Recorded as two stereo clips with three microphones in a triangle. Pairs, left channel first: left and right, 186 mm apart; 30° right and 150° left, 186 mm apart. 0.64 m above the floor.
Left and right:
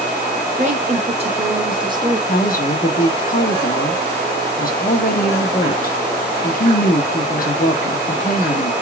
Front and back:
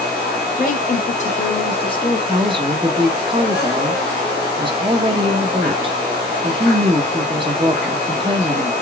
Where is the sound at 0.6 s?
50° right, 1.4 m; by 2.2 s 60° right, 0.9 m.